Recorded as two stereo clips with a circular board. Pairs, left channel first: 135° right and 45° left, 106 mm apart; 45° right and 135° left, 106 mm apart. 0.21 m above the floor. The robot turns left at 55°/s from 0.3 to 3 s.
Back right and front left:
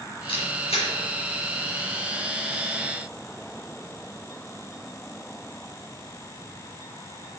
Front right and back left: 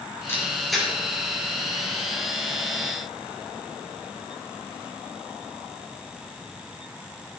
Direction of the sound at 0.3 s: 110° right.